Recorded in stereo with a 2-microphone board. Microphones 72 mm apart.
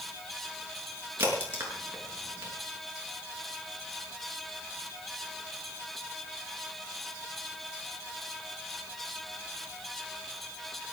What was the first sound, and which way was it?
A crack, 30° right (ahead or behind).